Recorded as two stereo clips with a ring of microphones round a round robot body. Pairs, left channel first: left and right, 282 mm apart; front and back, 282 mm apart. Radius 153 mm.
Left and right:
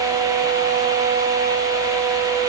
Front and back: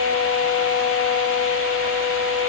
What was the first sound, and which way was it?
Only background noise.